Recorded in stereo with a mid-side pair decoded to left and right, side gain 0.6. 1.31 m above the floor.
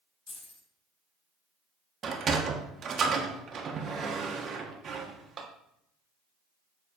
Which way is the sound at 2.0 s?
40° right.